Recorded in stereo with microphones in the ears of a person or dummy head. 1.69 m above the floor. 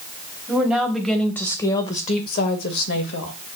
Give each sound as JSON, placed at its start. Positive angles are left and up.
{"t": 0.5, "sound": "a woman speaking", "side_deg": -5, "distance_m": 1.1}